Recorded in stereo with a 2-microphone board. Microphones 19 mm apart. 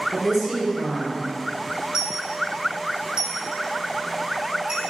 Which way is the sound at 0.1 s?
20° right (ahead or behind).